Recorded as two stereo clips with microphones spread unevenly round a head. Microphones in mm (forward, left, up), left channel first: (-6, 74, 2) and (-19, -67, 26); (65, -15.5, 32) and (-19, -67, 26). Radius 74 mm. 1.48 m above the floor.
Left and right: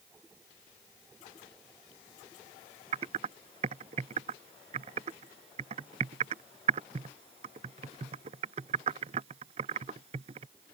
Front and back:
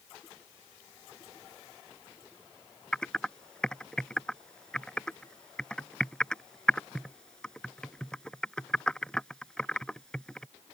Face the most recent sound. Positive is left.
turn(degrees=-50)